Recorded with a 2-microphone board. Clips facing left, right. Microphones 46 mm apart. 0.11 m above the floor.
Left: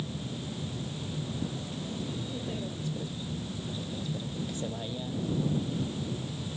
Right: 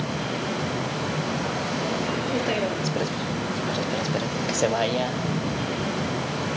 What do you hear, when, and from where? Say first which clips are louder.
0.0 s a vehicle: right 10 dB; 90° right